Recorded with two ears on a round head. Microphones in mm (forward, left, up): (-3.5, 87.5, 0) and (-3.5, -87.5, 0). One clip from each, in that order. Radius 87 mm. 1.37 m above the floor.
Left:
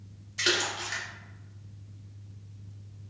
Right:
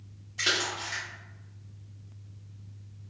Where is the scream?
No scream in this recording.